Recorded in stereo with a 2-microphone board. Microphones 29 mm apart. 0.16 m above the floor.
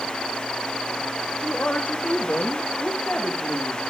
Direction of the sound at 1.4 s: 75° left (ahead or behind).